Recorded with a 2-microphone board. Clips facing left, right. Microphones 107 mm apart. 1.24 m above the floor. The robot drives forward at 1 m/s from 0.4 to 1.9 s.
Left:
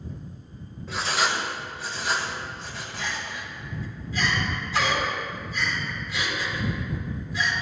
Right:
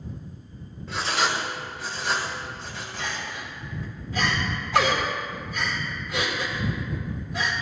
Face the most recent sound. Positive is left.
turn(degrees=-55)  # may be behind; listen again after turning